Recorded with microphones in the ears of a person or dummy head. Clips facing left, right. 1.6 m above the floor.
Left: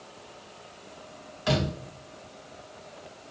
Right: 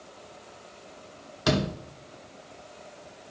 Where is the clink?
I don't hear a clink.